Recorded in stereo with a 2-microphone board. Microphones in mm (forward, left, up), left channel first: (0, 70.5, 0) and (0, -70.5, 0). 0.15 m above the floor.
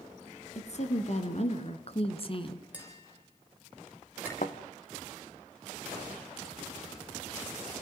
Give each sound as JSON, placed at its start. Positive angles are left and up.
{"t": 0.6, "sound": "a woman speaking", "side_deg": 55, "distance_m": 2.0}
{"t": 2.7, "sound": "tapping", "side_deg": -10, "distance_m": 7.0}
{"t": 4.4, "sound": "a thud", "side_deg": 60, "distance_m": 1.6}